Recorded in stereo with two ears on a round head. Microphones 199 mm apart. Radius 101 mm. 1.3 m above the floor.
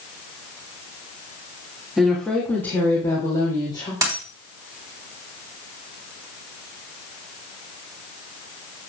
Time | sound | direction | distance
2.0 | a woman speaking | centre (ahead or behind) | 2.5 m
4.0 | a dropped coin | 15° right (ahead or behind) | 4 m